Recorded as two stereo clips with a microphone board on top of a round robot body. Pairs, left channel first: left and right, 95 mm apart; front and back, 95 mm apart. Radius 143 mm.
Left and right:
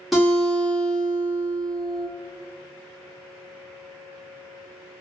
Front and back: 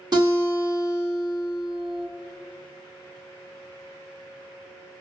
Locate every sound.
0.1 s a guitar: 175° right, 1.9 m